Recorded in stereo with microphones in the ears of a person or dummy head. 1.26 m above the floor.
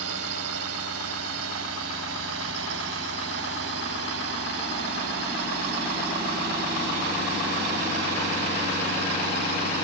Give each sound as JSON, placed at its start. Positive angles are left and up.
{"t": 0.0, "sound": "a drone", "side_deg": -75}